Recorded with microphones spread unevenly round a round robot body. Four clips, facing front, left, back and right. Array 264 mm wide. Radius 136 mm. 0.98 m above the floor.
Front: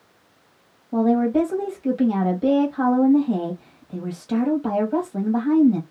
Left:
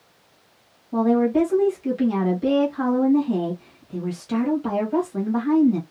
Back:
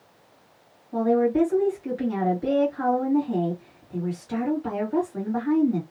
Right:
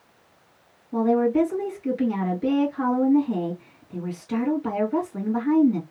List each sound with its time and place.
0.9 s a woman speaking: 5° left, 1.6 m